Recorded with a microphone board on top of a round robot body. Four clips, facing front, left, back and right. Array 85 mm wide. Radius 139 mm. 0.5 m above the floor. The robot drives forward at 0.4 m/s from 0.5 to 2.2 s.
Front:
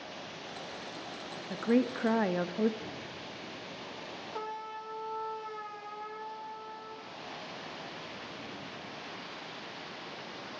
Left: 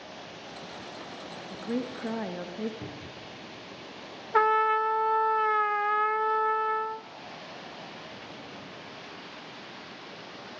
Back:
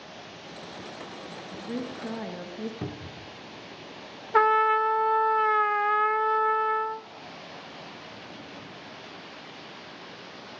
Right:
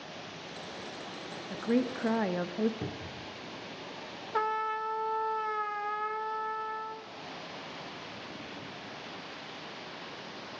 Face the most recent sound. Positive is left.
turn(degrees=150)